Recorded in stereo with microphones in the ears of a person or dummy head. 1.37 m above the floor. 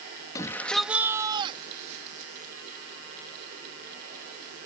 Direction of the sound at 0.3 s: 20° left (ahead or behind).